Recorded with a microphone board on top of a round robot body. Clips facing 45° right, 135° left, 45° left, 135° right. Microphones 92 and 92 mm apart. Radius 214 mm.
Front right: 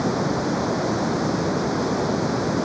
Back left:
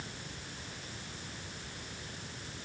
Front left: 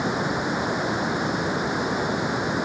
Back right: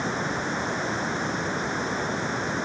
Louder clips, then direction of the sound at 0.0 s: Front right 25 dB, front left 3 dB; 35° right.